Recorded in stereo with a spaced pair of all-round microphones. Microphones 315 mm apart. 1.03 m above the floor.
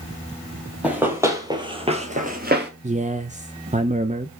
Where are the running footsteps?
5° right (ahead or behind), 2.0 m; by 2.7 s 35° right (ahead or behind), 1.4 m.